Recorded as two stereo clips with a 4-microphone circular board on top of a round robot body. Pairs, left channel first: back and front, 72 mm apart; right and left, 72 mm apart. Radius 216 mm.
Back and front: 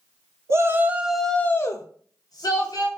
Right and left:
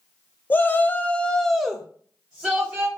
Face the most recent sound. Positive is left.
turn(degrees=165)